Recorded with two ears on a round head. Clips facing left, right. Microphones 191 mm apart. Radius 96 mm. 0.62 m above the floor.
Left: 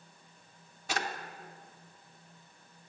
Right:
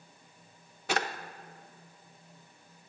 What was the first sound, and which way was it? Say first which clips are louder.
A drawer: right 4 dB; 50° right (ahead or behind).